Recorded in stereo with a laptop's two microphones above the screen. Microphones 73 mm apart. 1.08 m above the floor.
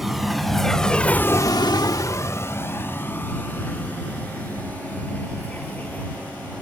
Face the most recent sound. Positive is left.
turn(degrees=20)  # may be behind; listen again after turning